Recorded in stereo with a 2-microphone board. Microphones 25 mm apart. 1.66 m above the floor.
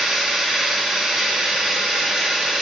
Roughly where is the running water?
Right.